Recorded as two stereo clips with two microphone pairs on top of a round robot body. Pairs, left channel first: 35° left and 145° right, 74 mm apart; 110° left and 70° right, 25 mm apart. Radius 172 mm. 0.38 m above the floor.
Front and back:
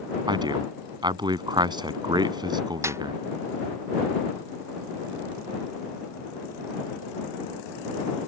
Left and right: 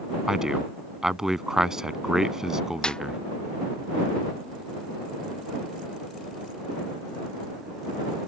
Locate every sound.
0.3 s a man speaking: 135° right
2.8 s a snare drum: 170° left